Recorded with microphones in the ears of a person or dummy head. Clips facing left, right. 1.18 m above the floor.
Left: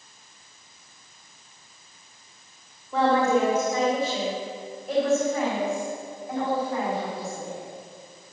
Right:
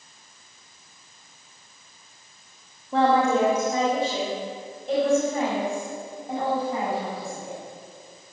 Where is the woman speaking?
30° right (ahead or behind), 2 m; by 7.6 s 35° right (ahead or behind), 7.5 m.